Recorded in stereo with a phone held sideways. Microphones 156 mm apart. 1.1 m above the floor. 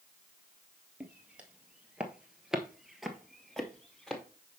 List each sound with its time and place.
1.0 s footsteps: 10° right (ahead or behind), 1.4 m; by 4.2 s 5° left (ahead or behind), 1.5 m